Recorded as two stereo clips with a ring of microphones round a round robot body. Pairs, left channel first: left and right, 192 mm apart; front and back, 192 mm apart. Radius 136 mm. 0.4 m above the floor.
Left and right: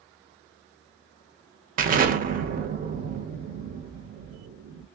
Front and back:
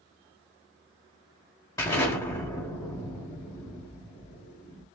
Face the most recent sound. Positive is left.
turn(degrees=-70)